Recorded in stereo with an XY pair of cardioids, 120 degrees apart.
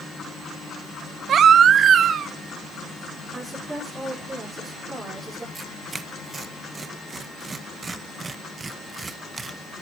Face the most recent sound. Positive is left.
turn(degrees=-25)